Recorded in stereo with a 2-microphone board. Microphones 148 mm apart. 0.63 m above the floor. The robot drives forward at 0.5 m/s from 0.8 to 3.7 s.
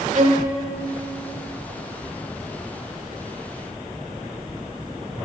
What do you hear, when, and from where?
0.1 s a violin: 55° right (ahead or behind), 0.7 m